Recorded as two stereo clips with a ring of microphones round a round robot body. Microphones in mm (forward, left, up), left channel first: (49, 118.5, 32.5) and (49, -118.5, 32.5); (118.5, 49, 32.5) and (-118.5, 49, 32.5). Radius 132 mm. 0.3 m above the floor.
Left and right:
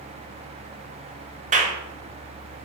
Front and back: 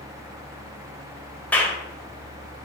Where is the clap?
80° right, 1.3 m.